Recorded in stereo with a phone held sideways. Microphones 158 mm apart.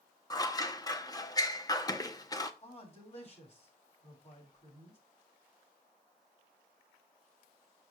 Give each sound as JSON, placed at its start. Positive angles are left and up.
{"t": 0.3, "sound": "scissors", "side_deg": 25, "distance_m": 0.7}
{"t": 2.6, "sound": "a man speaking", "side_deg": 45, "distance_m": 3.5}